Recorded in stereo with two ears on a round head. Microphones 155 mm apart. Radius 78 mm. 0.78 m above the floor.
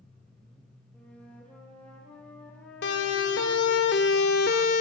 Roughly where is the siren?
Left.